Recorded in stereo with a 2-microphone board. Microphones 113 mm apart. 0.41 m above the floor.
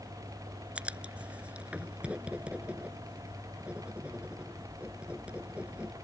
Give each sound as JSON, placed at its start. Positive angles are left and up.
{"t": 0.8, "sound": "writing", "side_deg": -10}